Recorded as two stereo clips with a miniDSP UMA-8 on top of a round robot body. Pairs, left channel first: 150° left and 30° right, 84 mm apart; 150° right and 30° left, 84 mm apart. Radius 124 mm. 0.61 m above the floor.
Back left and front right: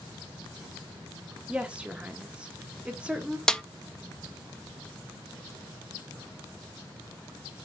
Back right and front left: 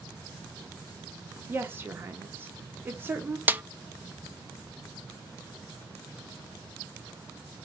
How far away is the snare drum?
About 0.5 m.